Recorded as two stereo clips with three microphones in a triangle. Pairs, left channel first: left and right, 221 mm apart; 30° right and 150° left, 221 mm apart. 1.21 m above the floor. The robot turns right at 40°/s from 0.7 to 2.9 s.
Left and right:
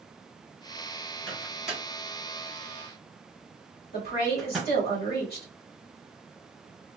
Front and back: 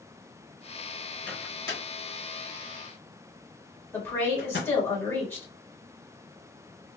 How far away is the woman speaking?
About 1.7 m.